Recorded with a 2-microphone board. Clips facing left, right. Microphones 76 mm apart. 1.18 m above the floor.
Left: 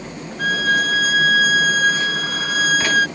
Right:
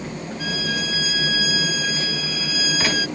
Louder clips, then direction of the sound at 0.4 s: Left 10 dB; 50° left (ahead or behind).